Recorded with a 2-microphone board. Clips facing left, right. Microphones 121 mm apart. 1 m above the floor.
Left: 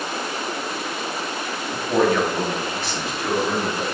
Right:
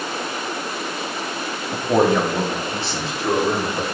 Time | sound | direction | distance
1.7 | a man speaking | 25° right (ahead or behind) | 2 m